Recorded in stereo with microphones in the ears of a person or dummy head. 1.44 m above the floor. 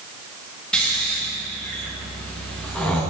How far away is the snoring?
About 0.9 m.